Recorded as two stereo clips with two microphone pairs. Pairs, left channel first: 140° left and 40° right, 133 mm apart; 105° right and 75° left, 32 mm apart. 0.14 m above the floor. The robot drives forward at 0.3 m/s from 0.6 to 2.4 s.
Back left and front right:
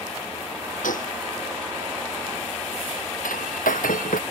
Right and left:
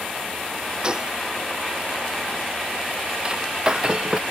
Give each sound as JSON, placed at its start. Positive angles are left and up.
{"t": 0.8, "sound": "a gunshot", "azimuth_deg": 140}
{"t": 3.2, "sound": "breaking glass", "azimuth_deg": 140}